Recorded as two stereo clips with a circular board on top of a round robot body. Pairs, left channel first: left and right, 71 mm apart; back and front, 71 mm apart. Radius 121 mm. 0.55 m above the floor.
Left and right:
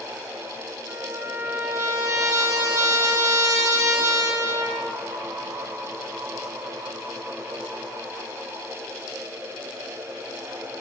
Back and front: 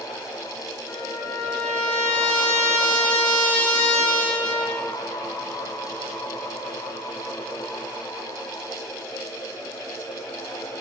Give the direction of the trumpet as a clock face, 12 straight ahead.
4 o'clock.